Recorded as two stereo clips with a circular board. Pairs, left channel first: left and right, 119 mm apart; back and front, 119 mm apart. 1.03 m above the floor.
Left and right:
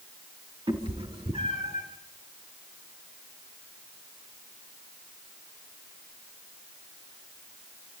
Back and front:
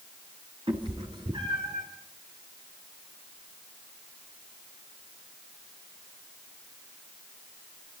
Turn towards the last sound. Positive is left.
turn(degrees=-50)